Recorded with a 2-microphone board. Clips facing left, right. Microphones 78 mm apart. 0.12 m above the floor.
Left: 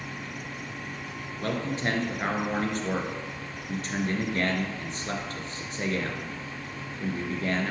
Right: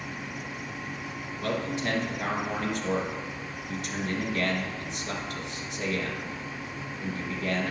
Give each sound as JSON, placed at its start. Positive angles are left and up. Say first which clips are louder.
{"t": 1.4, "sound": "a man speaking", "louder": "left 1 dB", "side_deg": 40, "distance_m": 1.7}